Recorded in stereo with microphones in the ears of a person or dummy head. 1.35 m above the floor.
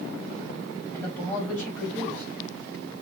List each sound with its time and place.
0.9 s a man speaking: 10° left (ahead or behind), 1.5 m